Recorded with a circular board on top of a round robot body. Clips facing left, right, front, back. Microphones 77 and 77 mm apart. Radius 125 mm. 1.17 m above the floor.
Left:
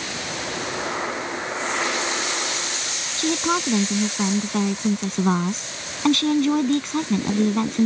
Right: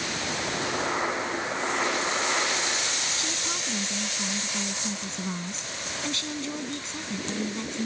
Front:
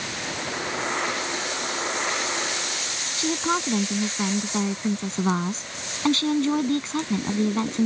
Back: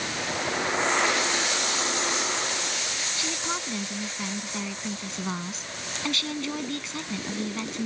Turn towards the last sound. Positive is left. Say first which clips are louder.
# left 11 dB, front 10 dB
turn(degrees=55)